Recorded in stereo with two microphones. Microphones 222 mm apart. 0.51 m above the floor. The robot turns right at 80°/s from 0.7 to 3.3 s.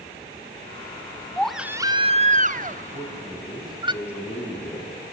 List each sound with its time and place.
1.4 s a baby crying: 170° left, 0.6 m; by 3.9 s 35° right, 0.6 m
2.9 s a man speaking: 35° right (ahead or behind), 3.5 m; by 5.0 s 5° right (ahead or behind), 3.5 m